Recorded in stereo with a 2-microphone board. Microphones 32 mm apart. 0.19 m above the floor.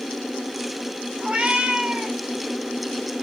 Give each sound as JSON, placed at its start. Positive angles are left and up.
{"t": 1.2, "sound": "a cat meowing", "side_deg": -40, "distance_m": 1.1}